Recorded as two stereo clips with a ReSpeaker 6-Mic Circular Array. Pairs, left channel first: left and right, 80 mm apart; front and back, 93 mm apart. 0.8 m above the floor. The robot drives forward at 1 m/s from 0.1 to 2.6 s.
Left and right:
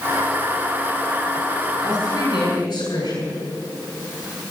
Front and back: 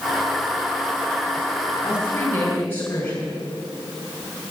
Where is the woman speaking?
65° left, 7 m; by 3.4 s 70° left, 6.5 m.